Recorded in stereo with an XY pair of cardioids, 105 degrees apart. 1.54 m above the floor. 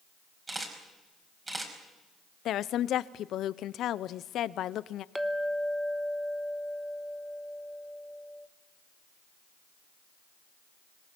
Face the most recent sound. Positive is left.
turn(degrees=-5)